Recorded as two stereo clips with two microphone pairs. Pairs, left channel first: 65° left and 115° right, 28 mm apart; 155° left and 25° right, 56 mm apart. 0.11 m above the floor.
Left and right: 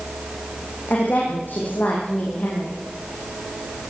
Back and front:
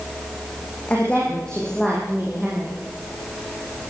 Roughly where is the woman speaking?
Left.